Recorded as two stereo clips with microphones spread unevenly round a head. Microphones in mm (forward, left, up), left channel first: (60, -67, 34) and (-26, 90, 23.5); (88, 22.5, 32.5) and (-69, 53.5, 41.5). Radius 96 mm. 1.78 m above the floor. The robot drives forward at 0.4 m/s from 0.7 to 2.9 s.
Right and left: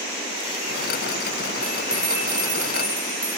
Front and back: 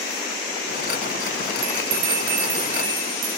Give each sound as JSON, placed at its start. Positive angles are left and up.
{"t": 1.6, "sound": "a bell", "azimuth_deg": -155, "distance_m": 9.0}